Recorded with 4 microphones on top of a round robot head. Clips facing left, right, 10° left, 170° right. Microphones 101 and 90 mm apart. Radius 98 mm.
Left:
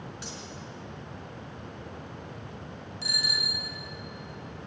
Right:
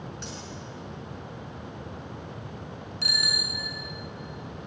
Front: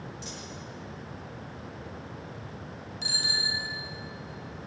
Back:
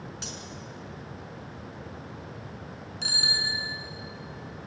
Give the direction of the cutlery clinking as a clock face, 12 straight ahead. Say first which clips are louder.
Right 2 dB, back 1 dB; 6 o'clock.